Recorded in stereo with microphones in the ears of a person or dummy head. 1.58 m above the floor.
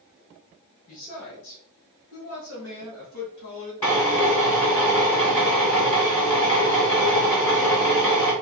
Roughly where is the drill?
Centre.